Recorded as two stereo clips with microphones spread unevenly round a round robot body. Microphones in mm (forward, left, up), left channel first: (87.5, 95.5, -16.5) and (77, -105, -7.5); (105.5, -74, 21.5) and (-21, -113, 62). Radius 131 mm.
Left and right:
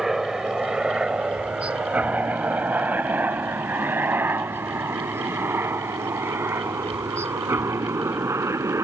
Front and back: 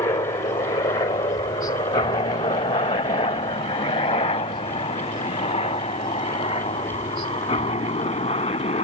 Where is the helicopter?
5° right; by 8.8 s 20° right.